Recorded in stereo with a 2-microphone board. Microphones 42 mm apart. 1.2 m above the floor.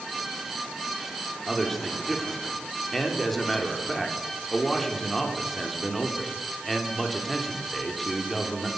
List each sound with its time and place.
1.5 s a man speaking: 5° left (ahead or behind), 3 m